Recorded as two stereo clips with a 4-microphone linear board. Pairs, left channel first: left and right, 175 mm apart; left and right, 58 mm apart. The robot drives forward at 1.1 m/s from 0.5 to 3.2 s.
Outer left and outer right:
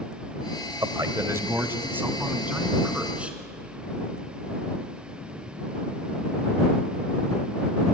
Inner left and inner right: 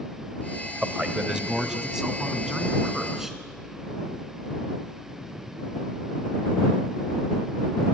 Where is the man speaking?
20° right (ahead or behind), 1.2 m; by 3.4 s 5° right (ahead or behind), 3.5 m.